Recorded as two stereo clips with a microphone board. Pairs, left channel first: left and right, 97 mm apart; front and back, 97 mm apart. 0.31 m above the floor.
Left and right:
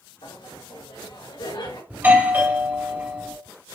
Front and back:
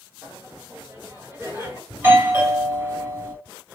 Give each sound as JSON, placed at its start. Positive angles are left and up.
{"t": 0.2, "sound": "laughter", "azimuth_deg": 115, "distance_m": 3.5}
{"t": 1.9, "sound": "a doorbell", "azimuth_deg": -135, "distance_m": 2.5}